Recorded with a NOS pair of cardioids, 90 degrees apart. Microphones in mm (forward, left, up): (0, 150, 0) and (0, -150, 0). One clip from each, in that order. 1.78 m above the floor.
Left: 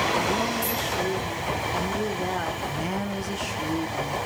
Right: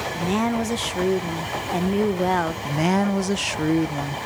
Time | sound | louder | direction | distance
0.1 | a woman speaking | even | 45° right | 1.1 m
2.6 | a woman speaking | right 7 dB | 45° right | 0.6 m